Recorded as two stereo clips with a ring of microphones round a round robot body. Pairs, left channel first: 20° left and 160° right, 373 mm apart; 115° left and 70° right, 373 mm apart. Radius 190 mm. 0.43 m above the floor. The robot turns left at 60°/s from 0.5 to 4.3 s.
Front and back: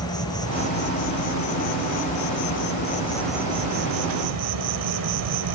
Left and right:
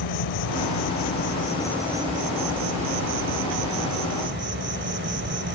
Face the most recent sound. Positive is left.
turn(degrees=-125)